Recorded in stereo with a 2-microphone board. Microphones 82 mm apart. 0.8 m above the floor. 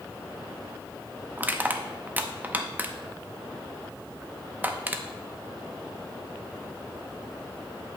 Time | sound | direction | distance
1.4 | crushing | 20° right (ahead or behind) | 0.5 m